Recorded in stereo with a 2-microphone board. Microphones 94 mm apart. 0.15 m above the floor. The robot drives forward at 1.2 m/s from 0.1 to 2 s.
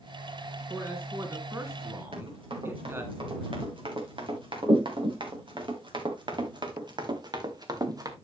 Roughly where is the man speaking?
Right.